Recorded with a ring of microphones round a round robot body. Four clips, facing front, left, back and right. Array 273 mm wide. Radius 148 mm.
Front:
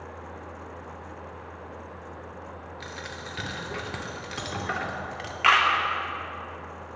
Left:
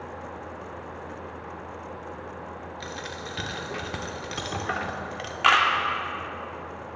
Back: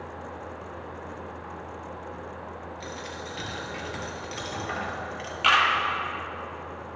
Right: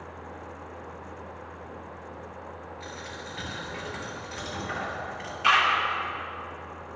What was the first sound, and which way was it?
A dropped coin, 65° left.